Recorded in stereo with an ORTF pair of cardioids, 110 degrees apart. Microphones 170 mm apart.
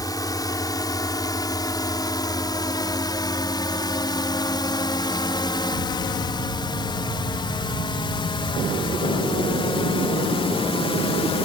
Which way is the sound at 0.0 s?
20° left.